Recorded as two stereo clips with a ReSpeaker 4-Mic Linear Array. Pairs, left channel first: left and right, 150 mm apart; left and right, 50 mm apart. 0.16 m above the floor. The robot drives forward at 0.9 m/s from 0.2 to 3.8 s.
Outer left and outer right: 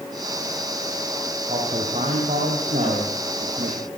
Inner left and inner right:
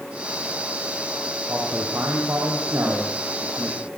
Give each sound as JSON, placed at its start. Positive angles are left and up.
{"t": 1.5, "sound": "a man speaking", "side_deg": -50, "distance_m": 8.0}